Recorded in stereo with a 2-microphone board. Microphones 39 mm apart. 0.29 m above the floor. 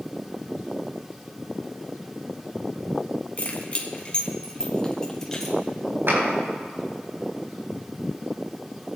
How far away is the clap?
About 4 m.